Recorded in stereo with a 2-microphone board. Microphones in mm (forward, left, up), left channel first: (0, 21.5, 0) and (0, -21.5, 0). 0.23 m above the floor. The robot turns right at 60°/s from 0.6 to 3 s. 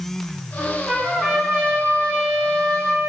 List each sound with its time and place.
0.6 s a trumpet: 125° left, 1.8 m; by 3.1 s 95° right, 1.8 m